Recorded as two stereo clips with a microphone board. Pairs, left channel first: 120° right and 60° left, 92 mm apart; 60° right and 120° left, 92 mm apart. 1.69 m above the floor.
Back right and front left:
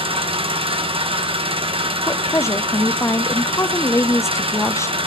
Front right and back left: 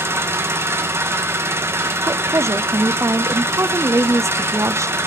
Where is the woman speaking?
Straight behind, 0.6 m.